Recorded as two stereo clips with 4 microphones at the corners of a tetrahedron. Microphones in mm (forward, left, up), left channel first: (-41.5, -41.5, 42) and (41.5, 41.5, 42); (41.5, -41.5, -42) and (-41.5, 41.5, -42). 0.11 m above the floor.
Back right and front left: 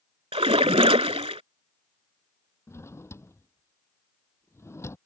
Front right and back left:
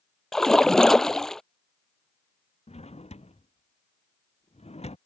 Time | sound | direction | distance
0.3 | a splash | 40° left | ?
2.7 | a drawer | 70° right | ?